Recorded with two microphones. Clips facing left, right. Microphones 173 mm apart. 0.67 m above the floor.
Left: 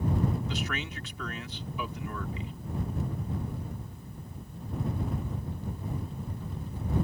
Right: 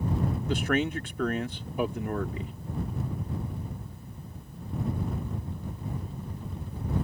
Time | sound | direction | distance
0.5 | a man speaking | 50° right (ahead or behind) | ?